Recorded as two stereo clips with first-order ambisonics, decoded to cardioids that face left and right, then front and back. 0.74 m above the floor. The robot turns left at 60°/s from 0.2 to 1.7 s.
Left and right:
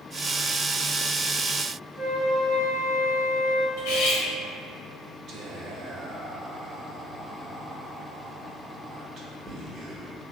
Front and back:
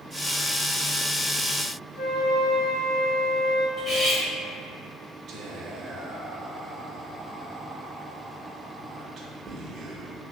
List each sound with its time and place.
2.0 s a flute: 25° left, 1.4 m
3.8 s cutlery clinking: 70° left, 1.0 m
5.3 s whispering: 135° right, 0.6 m